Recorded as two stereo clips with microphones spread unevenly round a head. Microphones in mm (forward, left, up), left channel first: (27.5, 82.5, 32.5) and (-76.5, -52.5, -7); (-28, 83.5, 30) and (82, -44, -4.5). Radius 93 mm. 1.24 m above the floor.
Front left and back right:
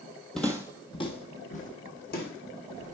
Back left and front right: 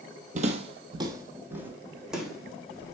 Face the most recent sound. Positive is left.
turn(degrees=50)